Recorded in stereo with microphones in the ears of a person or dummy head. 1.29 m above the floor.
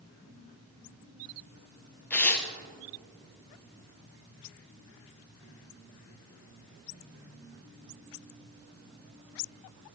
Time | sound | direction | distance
2.1 | tearing paper | 15° left (ahead or behind) | 0.7 m